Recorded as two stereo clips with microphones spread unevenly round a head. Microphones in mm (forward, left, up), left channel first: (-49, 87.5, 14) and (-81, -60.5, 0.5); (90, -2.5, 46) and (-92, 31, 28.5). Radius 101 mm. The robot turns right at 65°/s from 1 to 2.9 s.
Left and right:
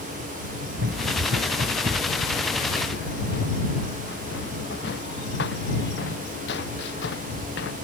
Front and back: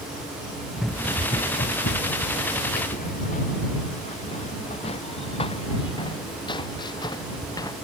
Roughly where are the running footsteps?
Right.